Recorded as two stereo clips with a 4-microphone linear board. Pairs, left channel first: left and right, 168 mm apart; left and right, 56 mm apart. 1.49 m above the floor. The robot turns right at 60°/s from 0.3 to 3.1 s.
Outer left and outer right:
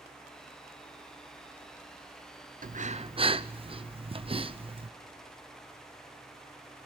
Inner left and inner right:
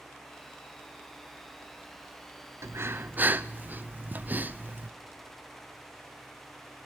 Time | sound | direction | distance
2.6 | breathing | 55° right (ahead or behind) | 0.6 m